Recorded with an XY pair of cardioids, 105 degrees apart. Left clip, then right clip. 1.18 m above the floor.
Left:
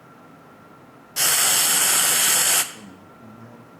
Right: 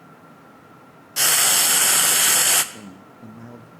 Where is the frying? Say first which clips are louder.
Right 2 dB; 10° right, 0.5 m.